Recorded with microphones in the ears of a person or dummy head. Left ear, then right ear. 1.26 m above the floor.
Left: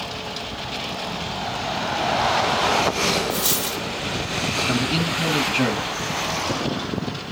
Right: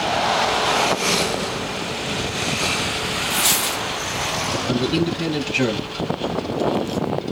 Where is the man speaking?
Centre (ahead or behind), 1.1 m.